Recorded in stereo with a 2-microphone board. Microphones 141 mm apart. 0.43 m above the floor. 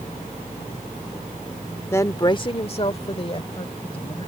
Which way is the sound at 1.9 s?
15° left (ahead or behind).